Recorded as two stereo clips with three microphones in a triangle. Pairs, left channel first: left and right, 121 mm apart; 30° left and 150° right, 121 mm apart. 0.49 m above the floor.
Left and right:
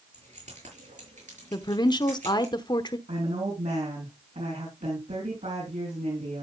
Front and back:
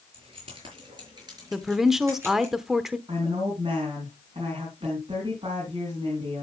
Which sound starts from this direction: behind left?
A woman speaking, at 1.5 s.